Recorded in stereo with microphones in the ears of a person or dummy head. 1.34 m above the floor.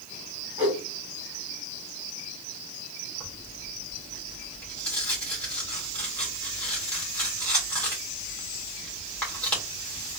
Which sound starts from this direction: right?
A whoosh, at 0.6 s.